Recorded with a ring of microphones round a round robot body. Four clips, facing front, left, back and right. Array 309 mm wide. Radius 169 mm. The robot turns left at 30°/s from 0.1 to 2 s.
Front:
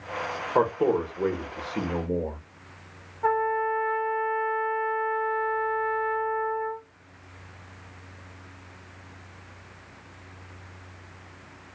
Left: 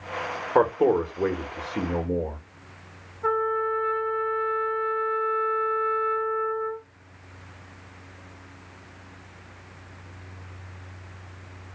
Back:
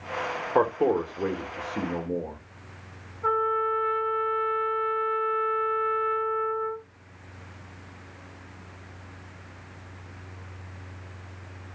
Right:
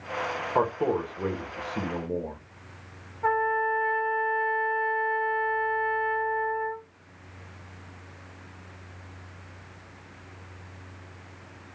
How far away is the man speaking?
About 0.9 m.